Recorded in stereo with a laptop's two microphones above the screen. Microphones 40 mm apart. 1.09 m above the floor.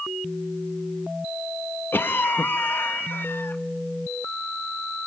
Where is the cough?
65° left (ahead or behind), 1.2 m.